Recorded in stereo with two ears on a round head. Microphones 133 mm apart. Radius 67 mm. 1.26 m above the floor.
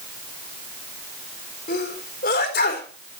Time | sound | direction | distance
1.7 | a sneeze | 75° left (ahead or behind) | 4 m